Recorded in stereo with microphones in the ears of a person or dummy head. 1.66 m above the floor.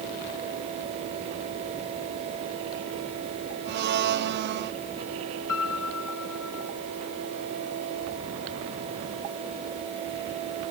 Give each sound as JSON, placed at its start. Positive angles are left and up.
{"t": 3.6, "sound": "a blender", "side_deg": -50}
{"t": 5.5, "sound": "a piano", "side_deg": 75}